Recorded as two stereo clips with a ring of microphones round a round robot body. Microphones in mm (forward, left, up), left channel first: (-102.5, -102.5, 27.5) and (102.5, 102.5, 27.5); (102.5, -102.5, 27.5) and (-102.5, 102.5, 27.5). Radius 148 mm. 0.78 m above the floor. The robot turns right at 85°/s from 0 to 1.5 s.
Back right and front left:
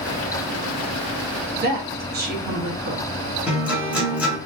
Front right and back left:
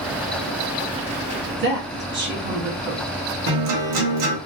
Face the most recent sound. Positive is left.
turn(degrees=130)